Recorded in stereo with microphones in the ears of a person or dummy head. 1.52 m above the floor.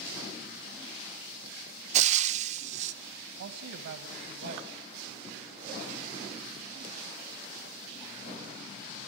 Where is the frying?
45° right (ahead or behind), 0.9 m.